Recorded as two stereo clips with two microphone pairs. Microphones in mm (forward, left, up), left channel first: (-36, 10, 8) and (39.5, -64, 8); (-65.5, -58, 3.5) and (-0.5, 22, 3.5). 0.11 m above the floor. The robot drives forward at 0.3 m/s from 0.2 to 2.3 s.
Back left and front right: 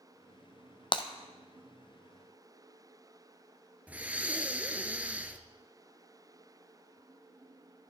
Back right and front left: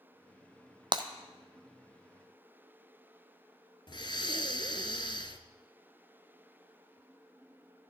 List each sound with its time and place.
0.9 s breaking glass: 95° left, 0.8 m
3.9 s breathing: 115° right, 0.7 m